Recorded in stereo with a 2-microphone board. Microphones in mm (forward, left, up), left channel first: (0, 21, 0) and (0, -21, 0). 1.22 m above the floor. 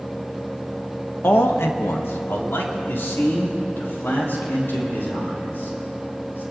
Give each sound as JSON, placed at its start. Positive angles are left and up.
{"t": 1.2, "sound": "a man speaking", "side_deg": 55, "distance_m": 0.8}